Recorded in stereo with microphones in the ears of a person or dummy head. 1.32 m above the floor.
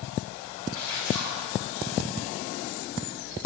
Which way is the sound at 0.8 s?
20° left (ahead or behind).